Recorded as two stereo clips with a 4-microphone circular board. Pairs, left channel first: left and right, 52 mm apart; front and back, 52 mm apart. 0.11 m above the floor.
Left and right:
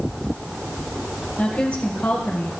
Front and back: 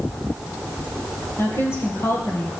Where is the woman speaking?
30° left, 2.5 m.